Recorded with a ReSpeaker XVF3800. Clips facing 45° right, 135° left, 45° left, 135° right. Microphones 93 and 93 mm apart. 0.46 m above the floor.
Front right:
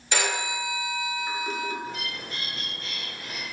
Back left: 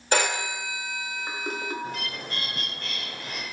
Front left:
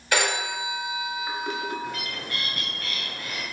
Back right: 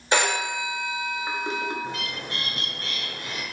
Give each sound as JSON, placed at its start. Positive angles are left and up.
{"t": 0.1, "sound": "a phone ringing", "azimuth_deg": 170, "distance_m": 0.9}
{"t": 1.8, "sound": "a bird", "azimuth_deg": 160, "distance_m": 0.9}